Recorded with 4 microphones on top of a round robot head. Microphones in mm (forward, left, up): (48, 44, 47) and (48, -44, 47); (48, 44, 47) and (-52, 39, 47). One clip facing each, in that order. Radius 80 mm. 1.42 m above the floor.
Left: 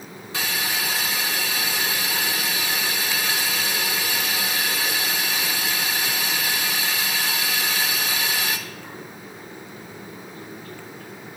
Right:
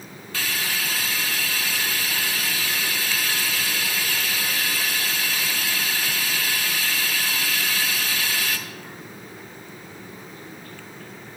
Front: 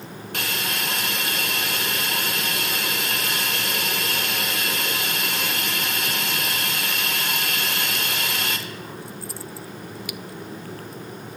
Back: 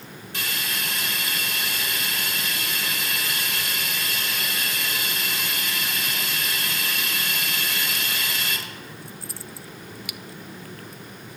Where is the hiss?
25° left, 1.0 m.